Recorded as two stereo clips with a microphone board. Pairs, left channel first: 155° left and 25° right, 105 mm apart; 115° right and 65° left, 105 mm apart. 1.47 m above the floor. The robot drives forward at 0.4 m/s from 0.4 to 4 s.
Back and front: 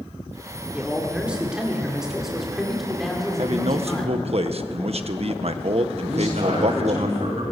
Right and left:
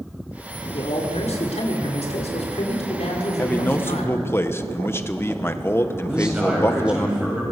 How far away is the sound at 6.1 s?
About 8.5 m.